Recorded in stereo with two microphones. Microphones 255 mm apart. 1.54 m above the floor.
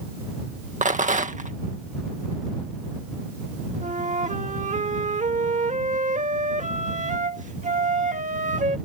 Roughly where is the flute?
Right.